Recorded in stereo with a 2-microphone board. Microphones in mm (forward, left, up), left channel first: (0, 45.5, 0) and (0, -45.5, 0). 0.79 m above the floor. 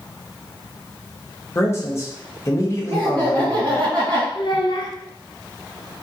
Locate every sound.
1.6 s a man speaking: 30° left (ahead or behind), 0.6 m
2.9 s laughter: 55° right (ahead or behind), 1.7 m
4.3 s a child speaking: 60° left (ahead or behind), 0.6 m